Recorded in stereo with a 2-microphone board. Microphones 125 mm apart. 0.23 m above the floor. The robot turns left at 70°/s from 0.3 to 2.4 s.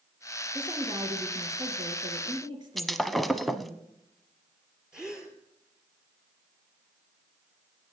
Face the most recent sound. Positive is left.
turn(degrees=-5)  # may be behind; listen again after turning